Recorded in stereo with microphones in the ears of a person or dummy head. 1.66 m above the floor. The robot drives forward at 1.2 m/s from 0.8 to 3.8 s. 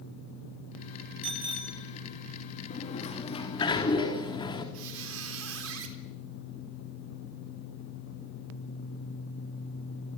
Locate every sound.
1.2 s a bicycle bell: 30° right (ahead or behind), 2.5 m; by 1.8 s 25° right (ahead or behind), 3 m
2.7 s a sliding door: 40° left (ahead or behind), 2.5 m; by 4.6 s 25° left (ahead or behind), 3.5 m
4.7 s a squeak: 75° right (ahead or behind), 3 m